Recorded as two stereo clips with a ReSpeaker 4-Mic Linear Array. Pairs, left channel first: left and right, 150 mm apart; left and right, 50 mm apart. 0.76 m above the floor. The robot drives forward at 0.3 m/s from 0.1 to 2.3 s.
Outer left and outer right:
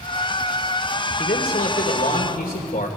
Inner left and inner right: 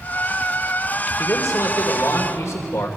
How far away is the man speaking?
About 2.5 m.